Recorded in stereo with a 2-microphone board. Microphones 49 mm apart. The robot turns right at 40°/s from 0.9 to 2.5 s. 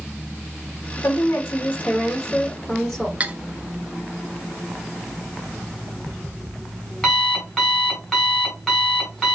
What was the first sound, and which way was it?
A woman speaking, 115° left.